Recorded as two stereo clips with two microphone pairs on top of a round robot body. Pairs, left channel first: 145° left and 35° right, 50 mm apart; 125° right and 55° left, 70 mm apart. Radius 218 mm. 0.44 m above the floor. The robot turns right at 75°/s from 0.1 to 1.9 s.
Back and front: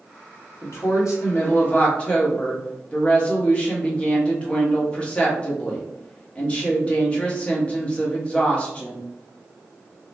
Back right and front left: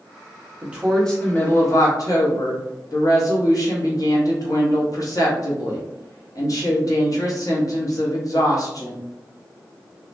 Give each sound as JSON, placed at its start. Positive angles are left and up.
{"t": 0.6, "sound": "a woman speaking", "azimuth_deg": 120, "distance_m": 1.4}